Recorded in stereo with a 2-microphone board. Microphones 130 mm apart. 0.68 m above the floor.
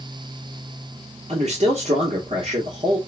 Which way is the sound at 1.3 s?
50° right (ahead or behind).